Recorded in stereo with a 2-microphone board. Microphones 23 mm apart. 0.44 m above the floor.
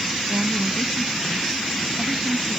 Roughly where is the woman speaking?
Right.